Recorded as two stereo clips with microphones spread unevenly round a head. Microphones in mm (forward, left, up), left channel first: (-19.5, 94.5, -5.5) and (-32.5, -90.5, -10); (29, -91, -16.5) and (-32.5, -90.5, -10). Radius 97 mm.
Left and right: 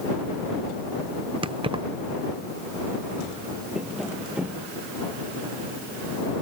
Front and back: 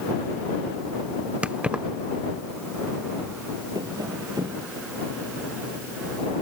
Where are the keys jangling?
135° right.